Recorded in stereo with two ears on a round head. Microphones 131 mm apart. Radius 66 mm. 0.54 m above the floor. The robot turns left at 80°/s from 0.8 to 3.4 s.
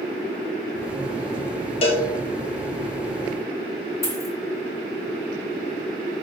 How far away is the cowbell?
About 1.0 m.